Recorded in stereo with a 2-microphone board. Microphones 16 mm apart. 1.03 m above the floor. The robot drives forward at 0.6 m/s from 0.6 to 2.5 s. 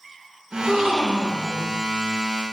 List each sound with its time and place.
0.5 s a gasp: 55° right (ahead or behind), 0.7 m; by 1.7 s 30° right (ahead or behind), 1.1 m